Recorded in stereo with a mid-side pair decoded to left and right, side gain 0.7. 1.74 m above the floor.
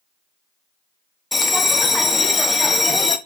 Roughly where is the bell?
Ahead.